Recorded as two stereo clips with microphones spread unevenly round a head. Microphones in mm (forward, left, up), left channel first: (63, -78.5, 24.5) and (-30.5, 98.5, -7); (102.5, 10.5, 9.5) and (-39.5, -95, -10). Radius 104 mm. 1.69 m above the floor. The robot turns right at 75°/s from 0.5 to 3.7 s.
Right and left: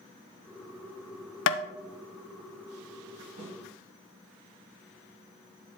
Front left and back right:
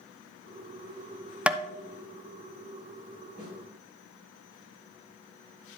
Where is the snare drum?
135° left, 4 m; by 3.5 s 145° left, 4 m.